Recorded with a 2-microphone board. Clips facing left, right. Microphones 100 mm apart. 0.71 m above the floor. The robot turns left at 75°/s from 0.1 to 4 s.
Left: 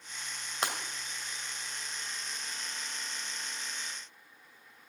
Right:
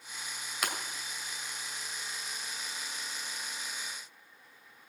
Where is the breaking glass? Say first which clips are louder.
Left 2 dB; 30° left (ahead or behind), 2 m; by 0.8 s 40° left (ahead or behind), 2 m.